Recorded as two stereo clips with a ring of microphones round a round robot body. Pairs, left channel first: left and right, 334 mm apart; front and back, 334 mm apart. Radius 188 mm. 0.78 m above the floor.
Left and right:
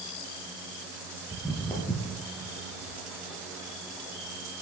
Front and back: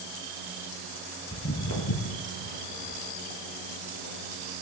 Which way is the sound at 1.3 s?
5° left.